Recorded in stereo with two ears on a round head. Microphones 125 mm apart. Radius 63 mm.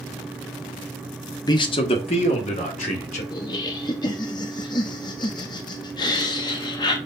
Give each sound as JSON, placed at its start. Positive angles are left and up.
{"t": 1.5, "sound": "a man speaking", "side_deg": 30, "distance_m": 1.0}
{"t": 3.3, "sound": "laughter", "side_deg": 30, "distance_m": 0.7}